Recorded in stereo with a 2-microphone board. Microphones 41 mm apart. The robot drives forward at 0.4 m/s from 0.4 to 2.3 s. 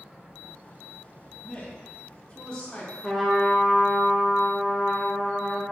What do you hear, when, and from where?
1.4 s a man speaking: 25° left (ahead or behind), 0.7 m; by 2.9 s 20° left (ahead or behind), 0.8 m
3.0 s a trumpet: centre (ahead or behind), 0.6 m